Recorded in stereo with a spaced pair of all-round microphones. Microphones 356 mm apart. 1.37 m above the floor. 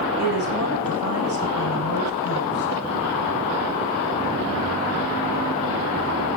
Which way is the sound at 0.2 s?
90° left.